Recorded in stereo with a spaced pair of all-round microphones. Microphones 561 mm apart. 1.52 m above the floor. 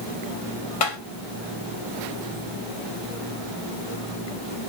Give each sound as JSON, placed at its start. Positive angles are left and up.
{"t": 0.8, "sound": "tapping", "side_deg": 75, "distance_m": 0.9}